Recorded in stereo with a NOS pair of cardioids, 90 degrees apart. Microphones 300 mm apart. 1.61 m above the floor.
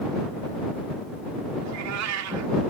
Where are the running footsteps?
I don't hear running footsteps.